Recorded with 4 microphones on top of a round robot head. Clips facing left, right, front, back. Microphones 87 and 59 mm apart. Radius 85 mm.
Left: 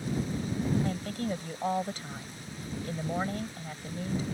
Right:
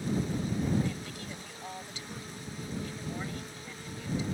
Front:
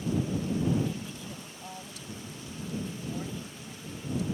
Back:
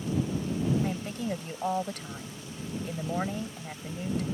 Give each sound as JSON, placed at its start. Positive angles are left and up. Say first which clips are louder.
{"t": 0.8, "sound": "a woman speaking", "louder": "left 6 dB, back 5 dB", "azimuth_deg": 140}